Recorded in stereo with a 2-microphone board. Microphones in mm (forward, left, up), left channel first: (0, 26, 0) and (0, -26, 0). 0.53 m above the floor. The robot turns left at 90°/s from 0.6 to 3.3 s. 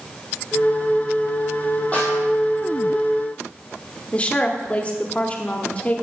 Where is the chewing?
No chewing in this recording.